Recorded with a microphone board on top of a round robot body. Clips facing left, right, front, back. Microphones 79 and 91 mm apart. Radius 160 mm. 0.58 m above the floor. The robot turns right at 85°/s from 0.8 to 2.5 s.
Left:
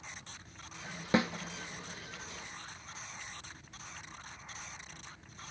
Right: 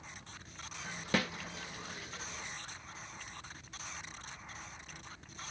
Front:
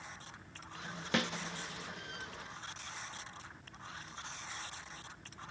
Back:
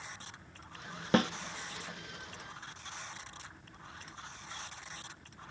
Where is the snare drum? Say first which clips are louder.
Left 4 dB, back 7 dB; 145° left, 1.3 m; by 1.3 s 160° left, 1.3 m.